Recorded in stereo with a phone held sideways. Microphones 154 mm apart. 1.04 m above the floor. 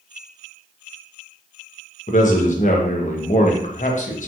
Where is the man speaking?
55° left (ahead or behind), 0.6 m.